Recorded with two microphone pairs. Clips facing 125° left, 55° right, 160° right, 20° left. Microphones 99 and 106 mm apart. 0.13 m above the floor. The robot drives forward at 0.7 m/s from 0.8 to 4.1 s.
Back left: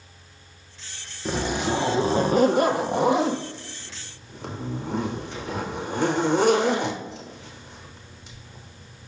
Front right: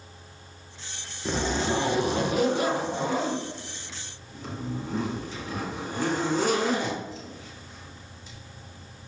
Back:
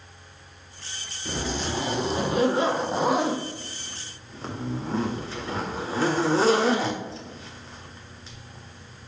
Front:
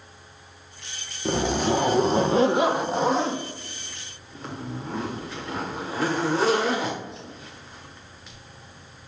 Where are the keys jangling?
I don't hear keys jangling.